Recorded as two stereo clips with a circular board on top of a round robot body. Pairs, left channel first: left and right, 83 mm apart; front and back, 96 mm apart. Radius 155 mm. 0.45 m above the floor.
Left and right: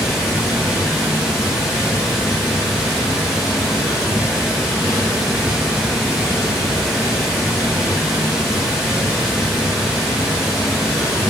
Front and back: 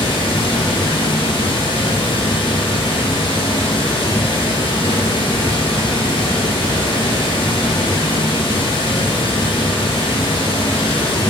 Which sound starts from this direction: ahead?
Running water, at 0.0 s.